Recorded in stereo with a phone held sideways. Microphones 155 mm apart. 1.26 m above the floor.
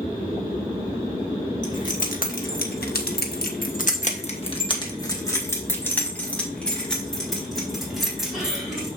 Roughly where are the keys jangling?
Left.